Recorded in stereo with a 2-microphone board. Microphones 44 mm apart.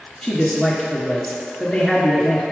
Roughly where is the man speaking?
Centre.